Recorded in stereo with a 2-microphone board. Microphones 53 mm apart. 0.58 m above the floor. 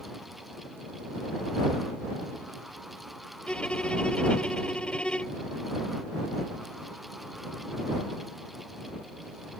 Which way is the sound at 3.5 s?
20° left (ahead or behind).